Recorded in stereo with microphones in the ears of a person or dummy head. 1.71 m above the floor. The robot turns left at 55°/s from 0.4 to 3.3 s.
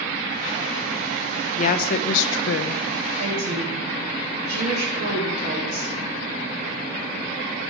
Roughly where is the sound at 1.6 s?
Behind left.